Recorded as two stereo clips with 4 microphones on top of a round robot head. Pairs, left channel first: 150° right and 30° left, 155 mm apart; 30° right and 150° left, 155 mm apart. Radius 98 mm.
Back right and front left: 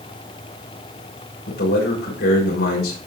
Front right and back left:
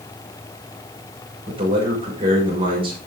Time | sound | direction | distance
1.5 | a man speaking | 155° right | 6.5 m